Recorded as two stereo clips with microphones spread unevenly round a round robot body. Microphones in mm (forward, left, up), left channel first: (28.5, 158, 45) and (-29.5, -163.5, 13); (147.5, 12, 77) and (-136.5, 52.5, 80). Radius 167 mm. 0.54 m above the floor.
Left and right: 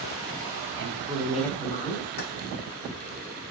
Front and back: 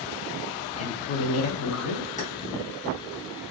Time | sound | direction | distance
0.8 | a woman speaking | 70° right | 0.9 m
2.2 | keys jangling | 55° left | 1.2 m